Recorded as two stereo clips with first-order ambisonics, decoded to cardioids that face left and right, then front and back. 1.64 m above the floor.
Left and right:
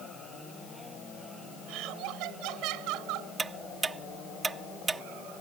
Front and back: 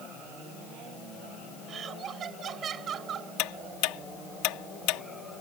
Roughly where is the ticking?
Ahead.